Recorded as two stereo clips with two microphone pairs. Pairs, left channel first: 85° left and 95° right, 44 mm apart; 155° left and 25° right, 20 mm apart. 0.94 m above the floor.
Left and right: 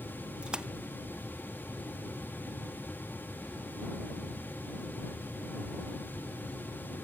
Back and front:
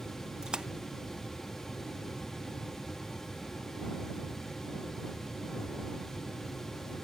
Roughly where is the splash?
Ahead right.